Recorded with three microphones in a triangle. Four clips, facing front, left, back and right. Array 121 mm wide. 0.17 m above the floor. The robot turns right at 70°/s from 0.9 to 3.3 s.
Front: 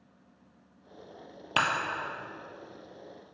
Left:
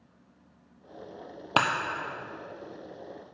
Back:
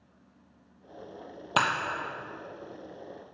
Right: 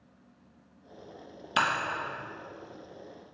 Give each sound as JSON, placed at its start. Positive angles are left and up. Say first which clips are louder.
{"t": 1.6, "sound": "breaking glass", "louder": "left 2 dB, back 2 dB", "azimuth_deg": 100, "distance_m": 1.2}